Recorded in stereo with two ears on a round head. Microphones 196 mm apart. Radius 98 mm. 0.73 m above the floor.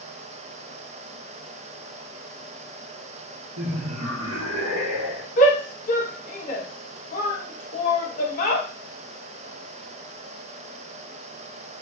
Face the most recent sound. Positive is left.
turn(degrees=40)  # may be behind; listen again after turning